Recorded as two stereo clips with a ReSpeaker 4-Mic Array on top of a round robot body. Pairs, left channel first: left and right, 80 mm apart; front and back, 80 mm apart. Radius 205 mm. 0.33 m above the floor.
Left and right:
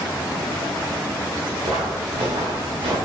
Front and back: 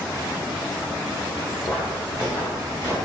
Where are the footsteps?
75° right, 3.5 m; by 3.0 s 65° right, 4 m.